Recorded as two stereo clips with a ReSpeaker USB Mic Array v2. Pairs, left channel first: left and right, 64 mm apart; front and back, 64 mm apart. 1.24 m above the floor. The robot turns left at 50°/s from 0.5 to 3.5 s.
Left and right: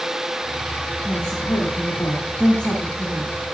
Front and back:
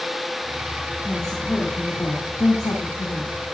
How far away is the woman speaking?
About 1.9 m.